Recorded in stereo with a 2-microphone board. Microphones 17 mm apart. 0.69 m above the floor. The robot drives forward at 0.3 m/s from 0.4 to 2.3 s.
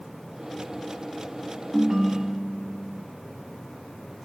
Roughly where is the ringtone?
Right.